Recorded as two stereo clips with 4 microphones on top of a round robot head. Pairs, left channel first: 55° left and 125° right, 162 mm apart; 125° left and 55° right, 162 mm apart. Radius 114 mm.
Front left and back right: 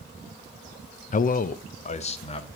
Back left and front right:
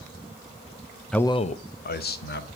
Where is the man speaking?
35° left, 0.5 m; by 2.5 s 110° left, 1.6 m.